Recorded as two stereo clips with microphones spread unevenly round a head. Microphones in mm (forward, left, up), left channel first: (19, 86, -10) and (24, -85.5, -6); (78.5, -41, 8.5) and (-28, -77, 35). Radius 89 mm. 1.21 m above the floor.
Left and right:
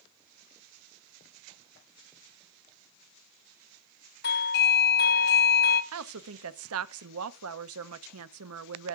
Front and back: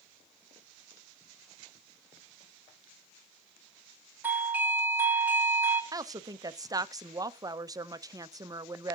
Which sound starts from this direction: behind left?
A doorbell, at 4.2 s.